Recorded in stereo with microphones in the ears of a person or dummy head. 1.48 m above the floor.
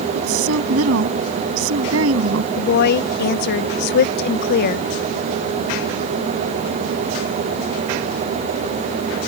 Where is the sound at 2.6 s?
60° left (ahead or behind).